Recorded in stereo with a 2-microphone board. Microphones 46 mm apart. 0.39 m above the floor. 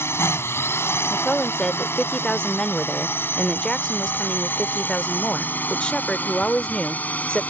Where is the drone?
65° left (ahead or behind); by 7.5 s 35° left (ahead or behind).